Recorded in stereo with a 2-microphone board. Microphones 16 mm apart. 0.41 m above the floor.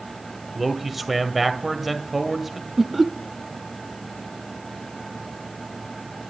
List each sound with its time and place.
0.6 s a man speaking: 10° right (ahead or behind), 2.0 m
2.8 s laughter: 5° right (ahead or behind), 0.9 m